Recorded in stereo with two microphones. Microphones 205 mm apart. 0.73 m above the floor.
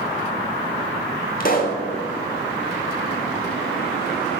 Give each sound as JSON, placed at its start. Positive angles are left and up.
{"t": 1.4, "sound": "a pop", "side_deg": 45, "distance_m": 1.2}